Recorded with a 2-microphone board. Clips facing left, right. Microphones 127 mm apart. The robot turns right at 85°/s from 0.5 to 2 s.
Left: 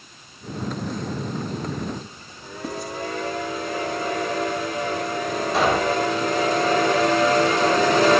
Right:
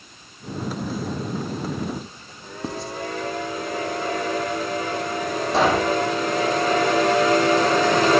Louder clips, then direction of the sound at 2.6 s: Even; 30° right (ahead or behind).